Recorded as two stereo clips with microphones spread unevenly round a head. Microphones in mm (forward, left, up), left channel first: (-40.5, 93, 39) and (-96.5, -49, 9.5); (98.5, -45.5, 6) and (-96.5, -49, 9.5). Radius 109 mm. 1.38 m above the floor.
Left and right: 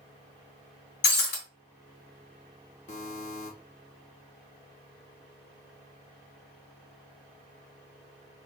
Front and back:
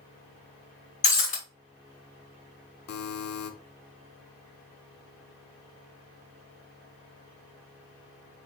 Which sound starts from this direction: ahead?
A buzzer, at 2.9 s.